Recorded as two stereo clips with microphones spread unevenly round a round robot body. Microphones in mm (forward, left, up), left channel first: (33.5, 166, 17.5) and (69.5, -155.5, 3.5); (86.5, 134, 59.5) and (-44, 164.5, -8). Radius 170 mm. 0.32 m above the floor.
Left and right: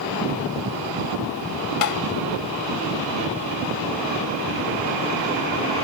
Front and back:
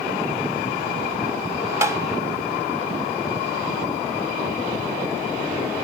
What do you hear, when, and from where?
1.8 s tapping: 120° left